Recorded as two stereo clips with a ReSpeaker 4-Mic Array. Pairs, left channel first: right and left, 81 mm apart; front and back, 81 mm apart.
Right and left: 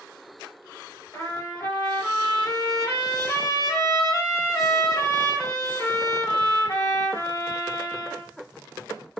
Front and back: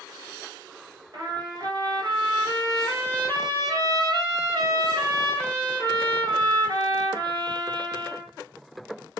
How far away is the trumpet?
About 2 m.